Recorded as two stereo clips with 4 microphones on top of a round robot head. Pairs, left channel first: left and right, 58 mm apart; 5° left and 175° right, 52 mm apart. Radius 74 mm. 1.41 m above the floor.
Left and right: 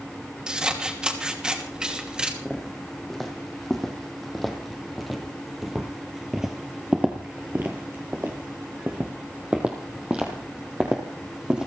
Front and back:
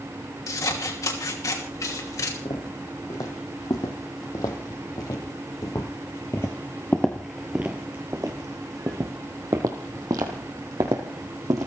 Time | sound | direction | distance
0.5 | scissors | 15° right | 2.5 m
2.5 | footsteps | 5° left | 3.5 m